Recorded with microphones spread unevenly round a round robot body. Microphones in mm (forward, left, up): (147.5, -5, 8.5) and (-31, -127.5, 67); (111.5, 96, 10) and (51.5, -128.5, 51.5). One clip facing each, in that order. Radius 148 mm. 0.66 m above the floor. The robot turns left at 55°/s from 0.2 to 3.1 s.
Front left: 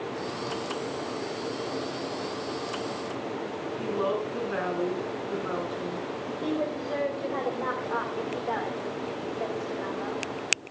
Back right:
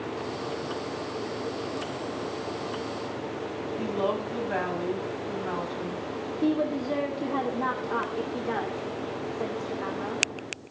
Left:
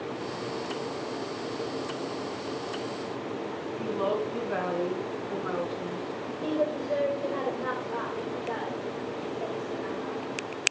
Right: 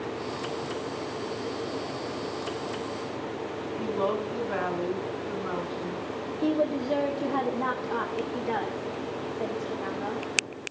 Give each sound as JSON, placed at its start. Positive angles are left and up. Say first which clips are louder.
{"t": 3.8, "sound": "a woman speaking", "louder": "front left 1 dB, even", "azimuth_deg": -165, "distance_m": 5.5}
{"t": 6.4, "sound": "a woman speaking", "louder": "back right 5 dB, right 3 dB", "azimuth_deg": -100, "distance_m": 2.0}